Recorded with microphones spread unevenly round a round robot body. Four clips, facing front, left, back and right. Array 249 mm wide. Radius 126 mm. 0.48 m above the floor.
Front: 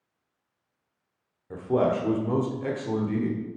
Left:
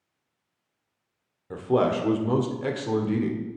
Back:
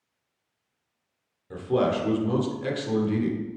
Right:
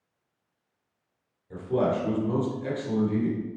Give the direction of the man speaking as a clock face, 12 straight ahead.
9 o'clock.